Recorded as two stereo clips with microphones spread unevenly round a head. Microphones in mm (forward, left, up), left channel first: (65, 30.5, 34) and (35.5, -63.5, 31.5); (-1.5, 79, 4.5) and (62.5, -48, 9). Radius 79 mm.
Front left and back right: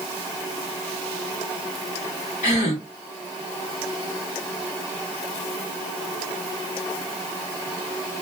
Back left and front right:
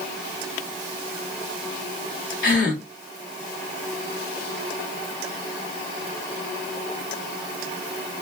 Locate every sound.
2.4 s a gasp: 100° left, 1.3 m